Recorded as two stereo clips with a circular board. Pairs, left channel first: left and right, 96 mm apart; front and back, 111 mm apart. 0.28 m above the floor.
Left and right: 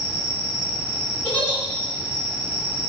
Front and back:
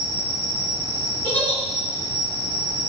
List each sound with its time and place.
0.0 s an insect: 10° right, 1.7 m
1.2 s a giggle: 45° left, 1.5 m